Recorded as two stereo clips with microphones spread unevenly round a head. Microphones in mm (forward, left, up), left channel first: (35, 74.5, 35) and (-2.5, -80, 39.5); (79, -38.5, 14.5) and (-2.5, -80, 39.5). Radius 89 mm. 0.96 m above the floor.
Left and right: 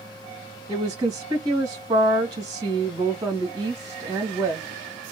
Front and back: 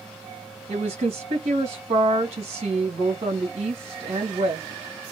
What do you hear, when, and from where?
0.7 s a woman speaking: 160° right, 1.7 m